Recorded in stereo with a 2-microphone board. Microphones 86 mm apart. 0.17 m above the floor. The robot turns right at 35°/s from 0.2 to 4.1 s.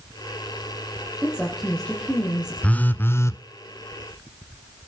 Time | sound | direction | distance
1.2 | a woman speaking | 15° right | 4.5 m
2.6 | a phone buzzing | 15° left (ahead or behind) | 0.6 m